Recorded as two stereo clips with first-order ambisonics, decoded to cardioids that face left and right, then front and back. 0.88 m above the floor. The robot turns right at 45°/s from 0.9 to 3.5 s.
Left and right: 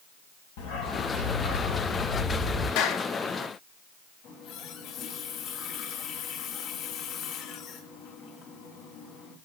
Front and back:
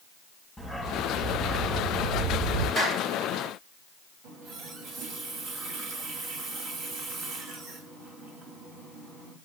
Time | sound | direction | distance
0.6 | a dog barking | 85° left | 2.5 m
2.8 | a clap | 95° left | 2.5 m
4.2 | a running tap | 135° left | 3.5 m